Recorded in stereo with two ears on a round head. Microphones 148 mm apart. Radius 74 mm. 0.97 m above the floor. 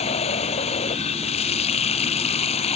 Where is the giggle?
No giggle in this recording.